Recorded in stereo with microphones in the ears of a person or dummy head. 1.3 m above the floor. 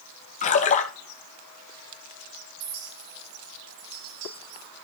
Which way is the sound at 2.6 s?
55° right (ahead or behind).